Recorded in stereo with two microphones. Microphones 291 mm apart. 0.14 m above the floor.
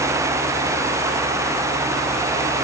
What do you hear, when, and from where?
Only background noise.